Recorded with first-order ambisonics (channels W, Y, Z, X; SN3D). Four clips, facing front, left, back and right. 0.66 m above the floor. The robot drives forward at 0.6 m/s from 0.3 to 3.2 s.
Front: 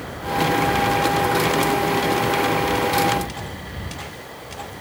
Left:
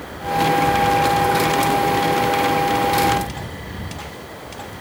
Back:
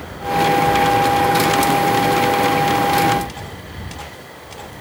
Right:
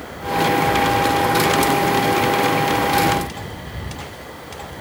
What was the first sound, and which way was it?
Only background noise.